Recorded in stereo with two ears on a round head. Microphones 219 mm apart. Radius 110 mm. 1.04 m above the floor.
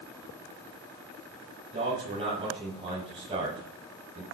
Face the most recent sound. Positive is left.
turn(degrees=-25)  # may be behind; listen again after turning